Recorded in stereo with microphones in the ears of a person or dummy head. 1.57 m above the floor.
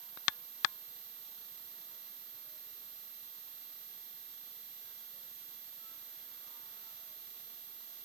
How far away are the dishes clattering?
I don't hear dishes clattering.